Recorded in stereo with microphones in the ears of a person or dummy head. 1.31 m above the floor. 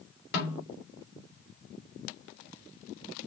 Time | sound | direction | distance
0.3 | a snare drum | 60° left (ahead or behind) | 3.5 m